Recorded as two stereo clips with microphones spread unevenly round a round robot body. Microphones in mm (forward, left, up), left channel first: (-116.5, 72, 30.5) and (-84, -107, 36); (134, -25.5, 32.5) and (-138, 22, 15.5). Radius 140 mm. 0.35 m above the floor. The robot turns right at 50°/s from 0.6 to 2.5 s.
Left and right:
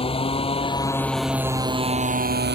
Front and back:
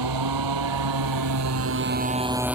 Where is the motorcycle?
160° left; by 2.6 s 105° right.